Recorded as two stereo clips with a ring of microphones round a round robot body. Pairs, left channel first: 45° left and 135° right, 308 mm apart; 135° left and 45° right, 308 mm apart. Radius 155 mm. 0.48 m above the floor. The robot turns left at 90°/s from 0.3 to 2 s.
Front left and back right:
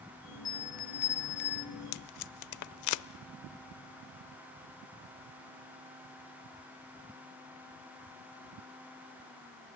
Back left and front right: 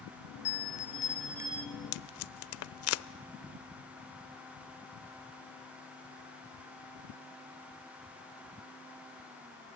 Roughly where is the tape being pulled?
Left.